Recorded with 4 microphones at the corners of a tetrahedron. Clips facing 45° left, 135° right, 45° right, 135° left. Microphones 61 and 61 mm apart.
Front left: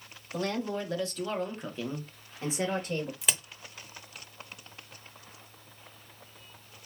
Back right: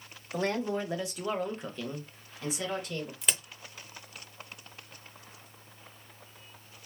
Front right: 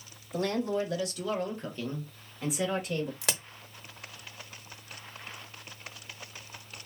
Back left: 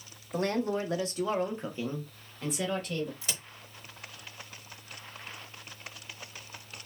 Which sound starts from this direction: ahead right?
A crack, at 3.2 s.